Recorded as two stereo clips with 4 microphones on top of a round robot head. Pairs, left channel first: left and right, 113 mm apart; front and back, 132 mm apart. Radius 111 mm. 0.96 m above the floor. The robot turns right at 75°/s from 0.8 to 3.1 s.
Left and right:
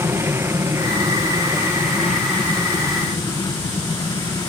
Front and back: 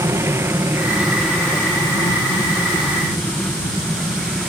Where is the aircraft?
135° right; by 4.5 s 95° left.